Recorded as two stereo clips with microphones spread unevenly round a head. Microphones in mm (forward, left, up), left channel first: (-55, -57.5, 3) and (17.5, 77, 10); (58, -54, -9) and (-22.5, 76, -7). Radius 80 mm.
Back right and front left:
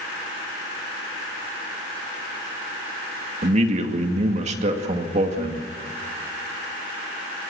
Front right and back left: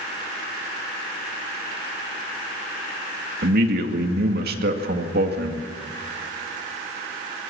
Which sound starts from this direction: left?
A man speaking, at 3.4 s.